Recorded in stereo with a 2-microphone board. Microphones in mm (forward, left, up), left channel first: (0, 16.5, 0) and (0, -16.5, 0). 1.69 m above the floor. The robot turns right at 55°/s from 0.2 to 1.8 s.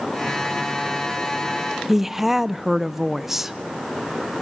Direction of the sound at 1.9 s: 10° right (ahead or behind).